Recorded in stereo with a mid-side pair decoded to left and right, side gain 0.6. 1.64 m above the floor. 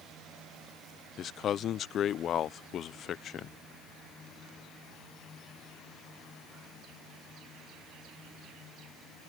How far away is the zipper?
I don't hear a zipper.